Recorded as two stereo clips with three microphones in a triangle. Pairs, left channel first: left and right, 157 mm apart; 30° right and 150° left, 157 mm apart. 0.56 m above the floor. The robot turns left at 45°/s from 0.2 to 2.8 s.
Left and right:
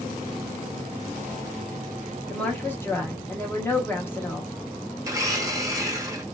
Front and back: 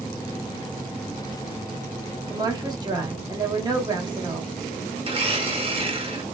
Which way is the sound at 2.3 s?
165° left.